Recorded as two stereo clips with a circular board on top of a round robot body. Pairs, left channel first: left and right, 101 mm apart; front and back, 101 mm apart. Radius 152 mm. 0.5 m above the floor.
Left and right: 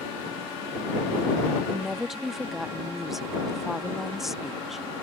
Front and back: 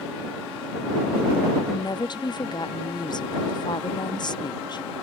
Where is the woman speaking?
5° right.